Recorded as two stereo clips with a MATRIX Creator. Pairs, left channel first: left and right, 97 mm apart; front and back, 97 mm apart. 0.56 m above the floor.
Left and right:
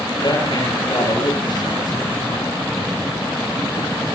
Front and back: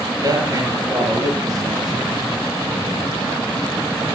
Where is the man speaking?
125° left, 9.5 m.